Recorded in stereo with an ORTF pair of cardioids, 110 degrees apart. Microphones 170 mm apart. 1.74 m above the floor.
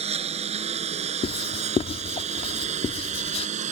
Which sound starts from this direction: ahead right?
A lawn mower, at 0.0 s.